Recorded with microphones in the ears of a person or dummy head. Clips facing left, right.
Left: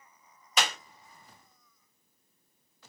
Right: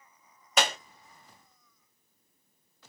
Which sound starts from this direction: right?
A clap, at 0.6 s.